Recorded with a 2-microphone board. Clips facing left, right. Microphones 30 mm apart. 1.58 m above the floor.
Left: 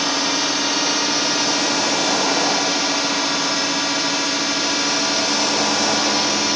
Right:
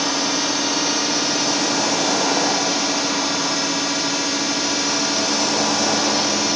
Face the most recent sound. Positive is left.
turn(degrees=15)  # may be behind; listen again after turning